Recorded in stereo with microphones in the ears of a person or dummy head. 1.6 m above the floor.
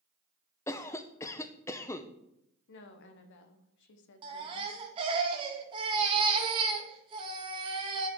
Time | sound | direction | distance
0.7 | a cough | 20° left (ahead or behind) | 0.8 m
2.7 | a woman speaking | 55° left (ahead or behind) | 1.1 m
4.2 | a baby crying | 25° right (ahead or behind) | 1.3 m